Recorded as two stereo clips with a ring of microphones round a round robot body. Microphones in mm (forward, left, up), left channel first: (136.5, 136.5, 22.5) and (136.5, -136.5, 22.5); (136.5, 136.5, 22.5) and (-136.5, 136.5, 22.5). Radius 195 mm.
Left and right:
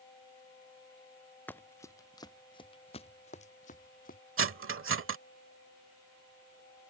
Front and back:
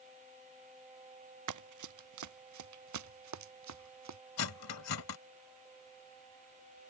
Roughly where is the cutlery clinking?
Ahead right.